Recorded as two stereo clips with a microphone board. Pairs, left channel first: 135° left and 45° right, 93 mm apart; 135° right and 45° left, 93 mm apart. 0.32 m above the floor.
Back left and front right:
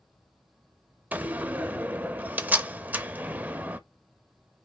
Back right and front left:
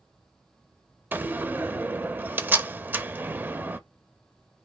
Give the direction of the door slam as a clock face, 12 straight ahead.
12 o'clock.